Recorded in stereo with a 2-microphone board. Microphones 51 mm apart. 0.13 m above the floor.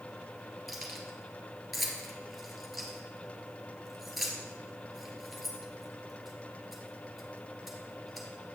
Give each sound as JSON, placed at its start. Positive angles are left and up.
{"t": 0.7, "sound": "keys jangling", "side_deg": 0, "distance_m": 1.5}